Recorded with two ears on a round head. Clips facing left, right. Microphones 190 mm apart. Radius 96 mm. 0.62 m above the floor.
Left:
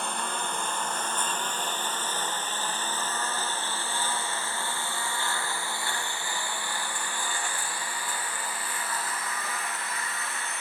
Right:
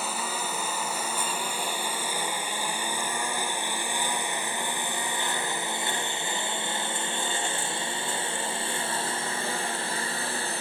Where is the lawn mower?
5° right (ahead or behind); by 10.6 s 30° right (ahead or behind).